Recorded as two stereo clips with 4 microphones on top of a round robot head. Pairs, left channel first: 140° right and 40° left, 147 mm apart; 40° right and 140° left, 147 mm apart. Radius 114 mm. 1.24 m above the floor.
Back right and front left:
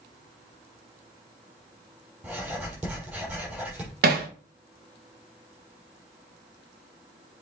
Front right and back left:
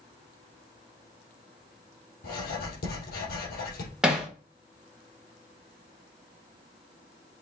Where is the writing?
35° right, 4 m.